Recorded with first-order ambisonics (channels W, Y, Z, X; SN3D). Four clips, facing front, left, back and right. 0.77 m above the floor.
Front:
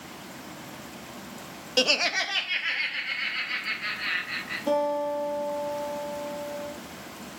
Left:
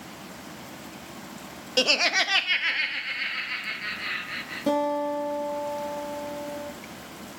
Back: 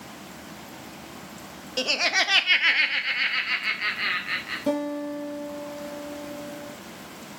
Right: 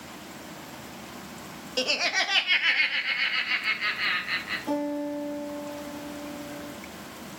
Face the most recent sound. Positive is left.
turn(degrees=120)